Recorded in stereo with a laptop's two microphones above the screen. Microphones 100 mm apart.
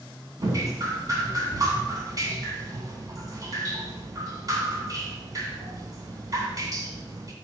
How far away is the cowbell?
No cowbell in this recording.